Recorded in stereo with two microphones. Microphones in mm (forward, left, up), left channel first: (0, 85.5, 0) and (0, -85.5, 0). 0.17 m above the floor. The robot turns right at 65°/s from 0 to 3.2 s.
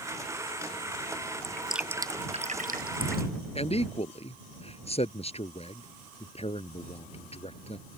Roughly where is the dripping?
Centre.